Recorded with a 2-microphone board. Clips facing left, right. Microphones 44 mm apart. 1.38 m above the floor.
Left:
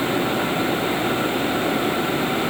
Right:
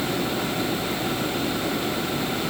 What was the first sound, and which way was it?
Only background noise.